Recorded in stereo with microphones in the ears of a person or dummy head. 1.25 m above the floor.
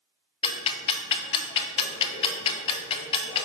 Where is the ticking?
30° left (ahead or behind), 0.6 m.